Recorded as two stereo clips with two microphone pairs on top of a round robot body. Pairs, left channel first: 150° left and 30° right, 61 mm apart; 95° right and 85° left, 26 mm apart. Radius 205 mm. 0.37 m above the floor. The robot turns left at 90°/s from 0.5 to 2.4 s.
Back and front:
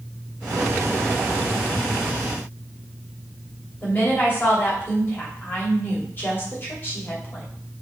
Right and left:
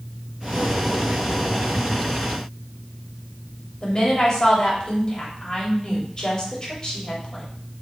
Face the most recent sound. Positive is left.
turn(degrees=-155)